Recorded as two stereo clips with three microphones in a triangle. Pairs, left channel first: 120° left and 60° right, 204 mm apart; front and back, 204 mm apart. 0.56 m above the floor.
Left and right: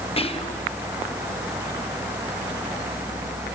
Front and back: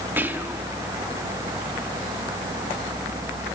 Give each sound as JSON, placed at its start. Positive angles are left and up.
{"t": 0.2, "sound": "whispering", "azimuth_deg": 110, "distance_m": 0.8}